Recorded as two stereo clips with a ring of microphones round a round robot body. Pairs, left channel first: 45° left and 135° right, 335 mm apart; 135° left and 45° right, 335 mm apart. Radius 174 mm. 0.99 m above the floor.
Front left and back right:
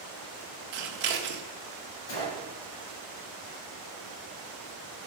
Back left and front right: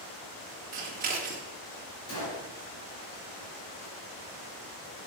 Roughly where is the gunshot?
Left.